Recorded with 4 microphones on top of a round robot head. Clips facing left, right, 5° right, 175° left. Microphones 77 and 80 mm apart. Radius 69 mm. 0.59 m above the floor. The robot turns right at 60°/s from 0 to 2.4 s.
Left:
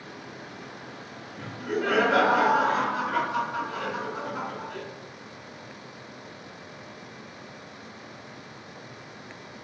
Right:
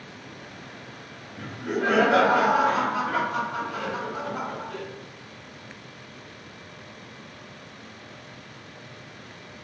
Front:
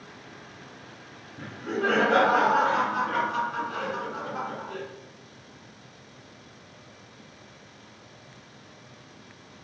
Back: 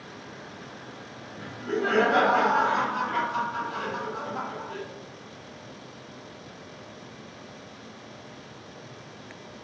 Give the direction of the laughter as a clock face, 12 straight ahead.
1 o'clock.